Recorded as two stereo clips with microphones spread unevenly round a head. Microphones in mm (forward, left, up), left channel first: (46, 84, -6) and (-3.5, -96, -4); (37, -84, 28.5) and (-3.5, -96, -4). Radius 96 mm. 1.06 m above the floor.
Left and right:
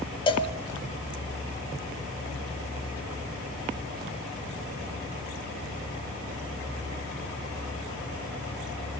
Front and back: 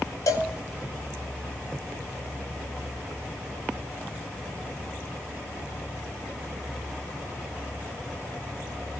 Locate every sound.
0.3 s a cowbell: 10° left, 2.0 m